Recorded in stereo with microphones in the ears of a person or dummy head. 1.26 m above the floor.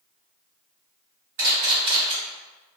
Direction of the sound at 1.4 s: 60° right (ahead or behind).